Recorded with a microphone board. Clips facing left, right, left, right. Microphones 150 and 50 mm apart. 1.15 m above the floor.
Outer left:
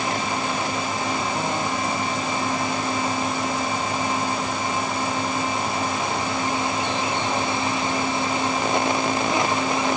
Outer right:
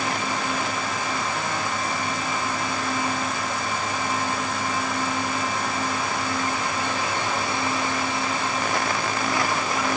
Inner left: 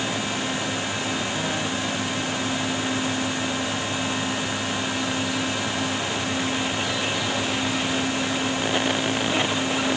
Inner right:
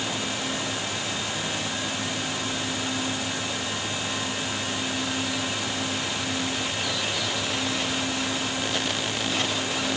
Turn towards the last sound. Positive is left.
No sound to turn to.